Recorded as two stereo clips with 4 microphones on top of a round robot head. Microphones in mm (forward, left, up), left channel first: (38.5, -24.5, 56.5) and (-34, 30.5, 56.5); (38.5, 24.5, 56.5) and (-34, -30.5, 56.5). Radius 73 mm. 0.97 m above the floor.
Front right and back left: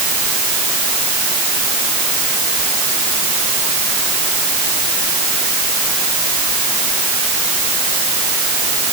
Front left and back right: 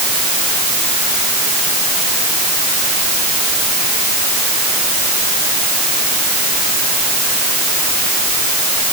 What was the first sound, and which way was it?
Only background noise.